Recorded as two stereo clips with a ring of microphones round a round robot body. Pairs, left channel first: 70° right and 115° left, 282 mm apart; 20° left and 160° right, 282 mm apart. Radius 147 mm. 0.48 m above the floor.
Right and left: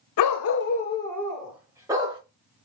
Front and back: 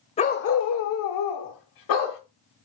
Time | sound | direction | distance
0.2 | a dog barking | 45° right | 0.5 m